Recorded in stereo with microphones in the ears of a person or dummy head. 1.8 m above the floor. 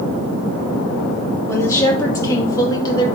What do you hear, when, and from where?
1.5 s a woman speaking: 15° left (ahead or behind), 3 m; by 3.1 s 25° left (ahead or behind), 1.9 m